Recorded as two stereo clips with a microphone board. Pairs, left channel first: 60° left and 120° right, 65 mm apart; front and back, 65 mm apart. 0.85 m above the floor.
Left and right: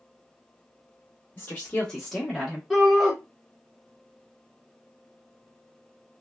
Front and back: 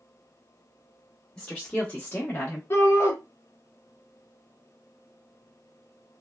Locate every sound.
1.4 s a woman speaking: 70° left, 0.9 m; by 2.6 s 50° right, 1.0 m
2.7 s a shout: 30° right, 0.8 m